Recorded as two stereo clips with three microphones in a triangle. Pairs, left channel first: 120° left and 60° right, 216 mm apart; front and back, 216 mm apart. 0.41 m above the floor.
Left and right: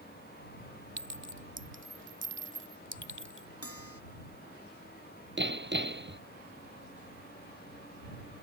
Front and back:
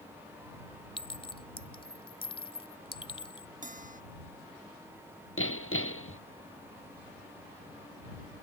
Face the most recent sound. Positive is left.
turn(degrees=-25)